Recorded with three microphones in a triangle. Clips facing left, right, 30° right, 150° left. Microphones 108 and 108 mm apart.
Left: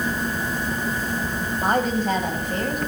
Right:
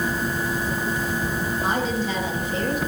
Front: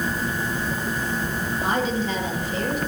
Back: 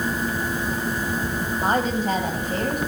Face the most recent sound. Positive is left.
turn(degrees=120)